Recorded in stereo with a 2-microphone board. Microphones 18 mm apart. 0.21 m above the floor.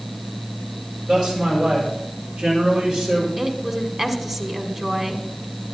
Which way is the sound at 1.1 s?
75° right (ahead or behind).